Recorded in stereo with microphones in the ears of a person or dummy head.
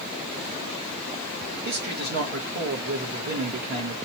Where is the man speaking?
55° right (ahead or behind), 1.4 m.